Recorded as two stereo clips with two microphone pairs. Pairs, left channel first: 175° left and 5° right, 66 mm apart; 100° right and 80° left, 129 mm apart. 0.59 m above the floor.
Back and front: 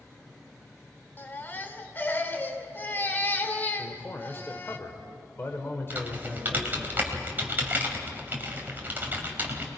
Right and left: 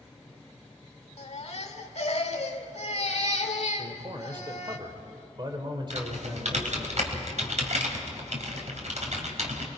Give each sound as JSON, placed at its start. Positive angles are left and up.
{"t": 1.2, "sound": "a baby crying", "azimuth_deg": -125, "distance_m": 1.6}
{"t": 3.8, "sound": "a man speaking", "azimuth_deg": 130, "distance_m": 2.0}
{"t": 5.9, "sound": "typing on a keyboard", "azimuth_deg": 60, "distance_m": 2.5}